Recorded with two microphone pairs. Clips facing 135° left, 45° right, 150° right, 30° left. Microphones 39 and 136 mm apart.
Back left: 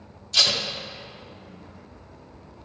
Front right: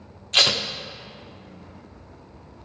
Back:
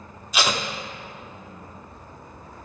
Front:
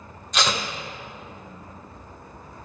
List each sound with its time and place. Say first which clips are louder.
0.3 s tape being pulled: front right 3 dB, back 1 dB; 65° right, 0.6 m